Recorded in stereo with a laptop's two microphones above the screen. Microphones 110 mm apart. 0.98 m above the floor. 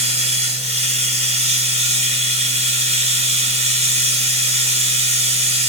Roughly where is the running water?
Right.